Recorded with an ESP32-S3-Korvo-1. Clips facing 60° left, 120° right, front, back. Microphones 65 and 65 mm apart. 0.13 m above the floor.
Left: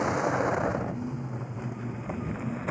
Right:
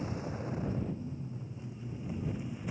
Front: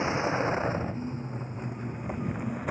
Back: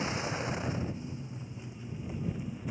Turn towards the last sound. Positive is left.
turn(degrees=25)